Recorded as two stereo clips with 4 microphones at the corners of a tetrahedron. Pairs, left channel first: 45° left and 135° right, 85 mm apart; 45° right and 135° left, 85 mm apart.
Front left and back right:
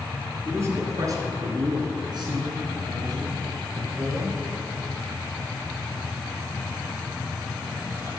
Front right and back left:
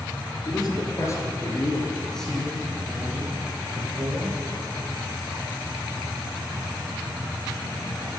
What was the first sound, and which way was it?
A man speaking, 75° right.